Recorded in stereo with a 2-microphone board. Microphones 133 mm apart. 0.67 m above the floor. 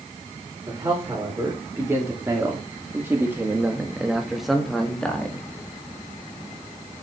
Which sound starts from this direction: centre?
A man speaking, at 0.7 s.